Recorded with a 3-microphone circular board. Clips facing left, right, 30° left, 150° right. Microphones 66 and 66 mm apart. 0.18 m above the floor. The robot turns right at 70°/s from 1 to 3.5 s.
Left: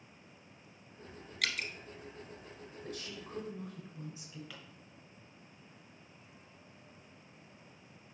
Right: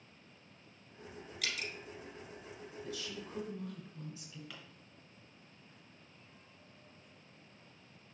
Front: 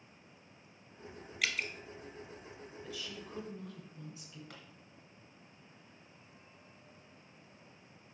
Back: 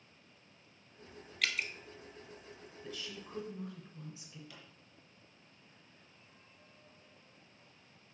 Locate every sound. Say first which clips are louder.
1.4 s dripping: left 4 dB, even; 110° left, 0.7 m; by 1.7 s 130° left, 0.7 m
2.8 s a woman speaking: even, even; 100° left, 2.5 m; by 4.4 s 150° left, 2.5 m
4.5 s a pop: left 1 dB, front 2 dB; 5° left, 2 m